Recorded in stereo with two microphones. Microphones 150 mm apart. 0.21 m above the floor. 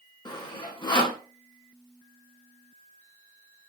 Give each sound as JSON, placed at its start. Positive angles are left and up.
{"t": 0.2, "sound": "sawing", "side_deg": 30, "distance_m": 0.7}